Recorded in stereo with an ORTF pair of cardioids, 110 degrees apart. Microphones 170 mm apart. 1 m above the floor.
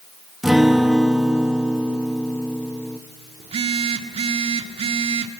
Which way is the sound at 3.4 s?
35° right.